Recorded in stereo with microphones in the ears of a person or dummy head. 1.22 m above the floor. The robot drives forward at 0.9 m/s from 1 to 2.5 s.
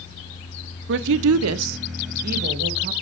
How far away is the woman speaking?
About 0.9 m.